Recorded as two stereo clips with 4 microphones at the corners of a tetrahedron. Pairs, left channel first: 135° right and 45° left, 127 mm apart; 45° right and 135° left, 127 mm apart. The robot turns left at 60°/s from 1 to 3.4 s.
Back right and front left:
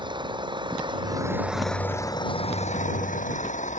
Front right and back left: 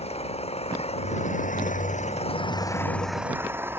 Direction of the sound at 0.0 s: 10° right.